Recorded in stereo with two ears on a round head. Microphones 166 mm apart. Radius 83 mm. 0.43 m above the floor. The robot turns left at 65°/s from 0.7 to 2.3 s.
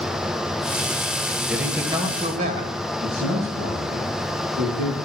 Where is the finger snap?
No finger snap in this recording.